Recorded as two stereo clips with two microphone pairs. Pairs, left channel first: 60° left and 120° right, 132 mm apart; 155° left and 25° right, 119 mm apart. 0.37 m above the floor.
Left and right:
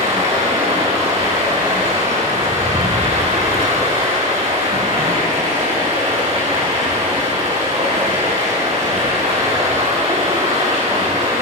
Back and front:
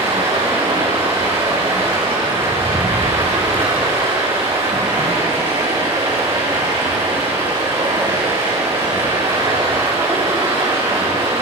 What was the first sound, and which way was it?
Running water, 70° right.